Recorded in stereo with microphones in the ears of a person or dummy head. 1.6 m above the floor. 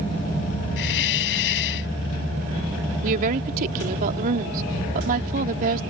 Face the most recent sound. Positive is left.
turn(degrees=-50)  # may be behind; listen again after turning